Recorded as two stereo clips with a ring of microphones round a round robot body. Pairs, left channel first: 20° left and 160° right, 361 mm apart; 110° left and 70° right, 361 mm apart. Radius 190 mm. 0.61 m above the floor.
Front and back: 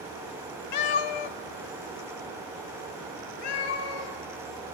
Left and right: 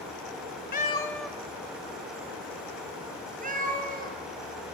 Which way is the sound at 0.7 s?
50° left.